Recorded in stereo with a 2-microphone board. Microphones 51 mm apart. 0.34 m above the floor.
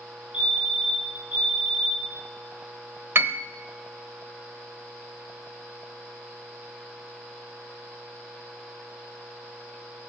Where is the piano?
50° right (ahead or behind), 0.7 m.